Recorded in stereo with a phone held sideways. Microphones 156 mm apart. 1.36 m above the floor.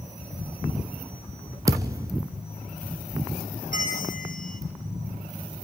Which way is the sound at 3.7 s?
65° left (ahead or behind).